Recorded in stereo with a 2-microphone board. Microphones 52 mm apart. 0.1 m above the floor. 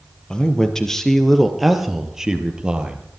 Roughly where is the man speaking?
Centre.